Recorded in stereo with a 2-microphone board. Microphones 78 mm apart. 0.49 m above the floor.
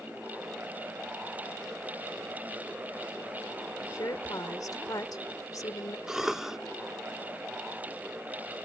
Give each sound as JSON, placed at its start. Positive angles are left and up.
{"t": 3.8, "sound": "a woman speaking", "side_deg": 50}
{"t": 6.1, "sound": "a cough", "side_deg": -5}